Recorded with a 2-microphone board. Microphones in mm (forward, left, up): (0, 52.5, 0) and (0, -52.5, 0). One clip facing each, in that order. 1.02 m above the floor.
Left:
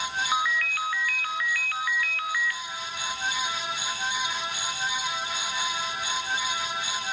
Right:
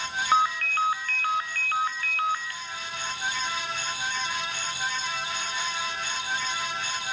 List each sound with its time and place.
0.3 s a ringtone: 35° right (ahead or behind), 0.5 m